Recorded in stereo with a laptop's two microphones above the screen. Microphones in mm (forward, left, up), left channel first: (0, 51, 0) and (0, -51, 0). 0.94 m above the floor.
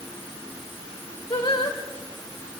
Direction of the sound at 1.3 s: 55° left (ahead or behind).